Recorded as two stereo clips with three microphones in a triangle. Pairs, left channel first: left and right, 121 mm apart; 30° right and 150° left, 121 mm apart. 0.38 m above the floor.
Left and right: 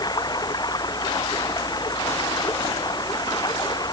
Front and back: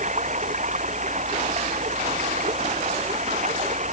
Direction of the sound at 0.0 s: 145° left.